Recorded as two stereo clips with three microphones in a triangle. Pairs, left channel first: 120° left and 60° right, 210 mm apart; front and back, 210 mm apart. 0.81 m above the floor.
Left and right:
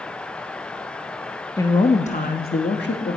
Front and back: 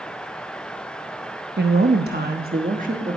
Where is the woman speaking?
170° right, 0.8 m; by 3.2 s 130° left, 1.3 m.